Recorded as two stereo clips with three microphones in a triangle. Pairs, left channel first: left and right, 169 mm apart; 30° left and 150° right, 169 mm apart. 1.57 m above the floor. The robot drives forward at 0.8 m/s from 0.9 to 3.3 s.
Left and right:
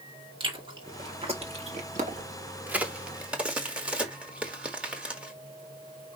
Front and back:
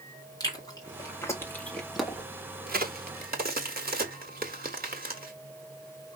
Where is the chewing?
35° right, 1.9 m; by 2.2 s 70° right, 1.3 m.